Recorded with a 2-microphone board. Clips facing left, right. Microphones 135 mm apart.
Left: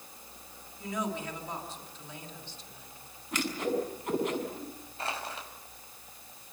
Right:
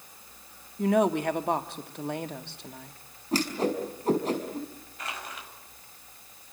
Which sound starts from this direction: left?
Crushing, at 5.0 s.